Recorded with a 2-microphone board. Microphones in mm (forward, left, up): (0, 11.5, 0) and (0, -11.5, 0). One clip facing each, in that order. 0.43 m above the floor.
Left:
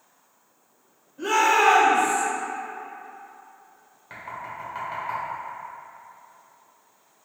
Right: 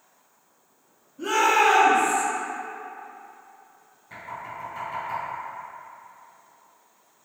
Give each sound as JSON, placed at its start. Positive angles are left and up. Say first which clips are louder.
{"t": 1.2, "sound": "a shout", "louder": "left 1 dB", "side_deg": 45, "distance_m": 1.3}
{"t": 4.1, "sound": "knocking", "louder": "left 1 dB", "side_deg": 45, "distance_m": 1.4}